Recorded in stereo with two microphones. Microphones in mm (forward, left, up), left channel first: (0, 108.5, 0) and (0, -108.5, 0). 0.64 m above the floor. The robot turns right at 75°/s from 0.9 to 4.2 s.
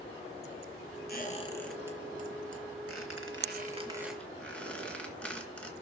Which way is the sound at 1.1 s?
50° left (ahead or behind).